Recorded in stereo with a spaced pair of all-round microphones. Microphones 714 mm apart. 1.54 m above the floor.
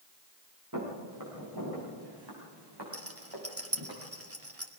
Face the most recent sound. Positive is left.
turn(degrees=-20)  # may be behind; listen again after turning